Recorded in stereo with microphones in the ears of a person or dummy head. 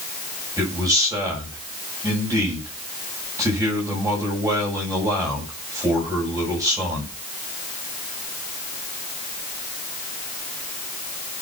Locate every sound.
0.6 s a man speaking: 15° right (ahead or behind), 7.5 m